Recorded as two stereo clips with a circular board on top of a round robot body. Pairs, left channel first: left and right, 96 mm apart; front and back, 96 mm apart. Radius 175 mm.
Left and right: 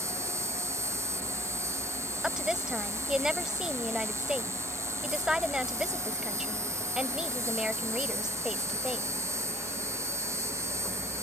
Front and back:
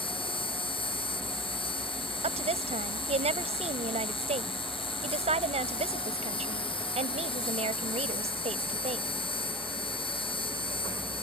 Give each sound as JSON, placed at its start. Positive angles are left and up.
{"t": 0.0, "sound": "an insect", "azimuth_deg": -30}
{"t": 2.2, "sound": "a woman speaking", "azimuth_deg": -175}